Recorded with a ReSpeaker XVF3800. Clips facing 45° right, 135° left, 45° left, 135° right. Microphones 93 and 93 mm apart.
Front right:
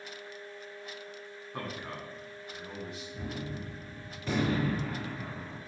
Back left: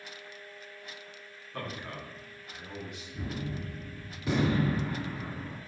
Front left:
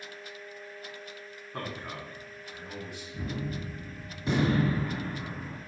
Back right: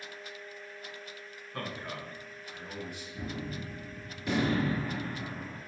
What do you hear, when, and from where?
1.5 s a man speaking: 10° left, 1.2 m; by 3.0 s 80° right, 1.4 m
3.1 s a gunshot: 65° left, 1.6 m